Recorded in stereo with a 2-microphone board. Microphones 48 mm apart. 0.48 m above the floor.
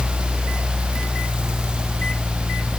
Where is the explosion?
No explosion in this recording.